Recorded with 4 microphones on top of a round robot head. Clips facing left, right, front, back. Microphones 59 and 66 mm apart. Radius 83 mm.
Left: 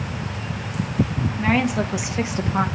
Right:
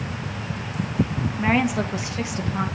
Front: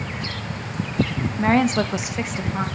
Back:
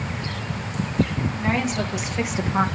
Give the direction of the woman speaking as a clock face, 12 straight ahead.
12 o'clock.